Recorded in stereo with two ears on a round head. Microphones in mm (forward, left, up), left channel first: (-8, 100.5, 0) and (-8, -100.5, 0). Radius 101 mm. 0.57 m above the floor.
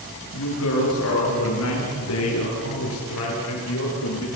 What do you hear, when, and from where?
0.3 s a woman speaking: 75° left (ahead or behind), 9.5 m; by 4.3 s 70° left (ahead or behind), 11.5 m